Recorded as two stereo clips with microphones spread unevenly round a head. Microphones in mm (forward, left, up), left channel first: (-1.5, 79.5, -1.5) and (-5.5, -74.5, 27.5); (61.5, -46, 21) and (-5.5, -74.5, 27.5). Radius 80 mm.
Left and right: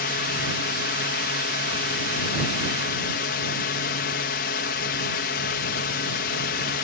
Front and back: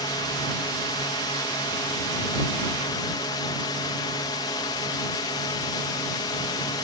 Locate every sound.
0.0 s a drone: 70° left